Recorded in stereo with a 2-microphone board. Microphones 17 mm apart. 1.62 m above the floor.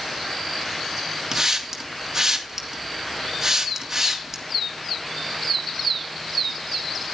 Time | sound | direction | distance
1.3 | a hiss | 25° right (ahead or behind) | 2.5 m